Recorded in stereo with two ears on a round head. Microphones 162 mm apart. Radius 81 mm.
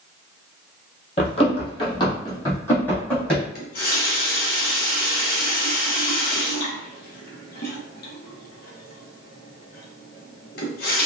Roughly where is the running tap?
Left.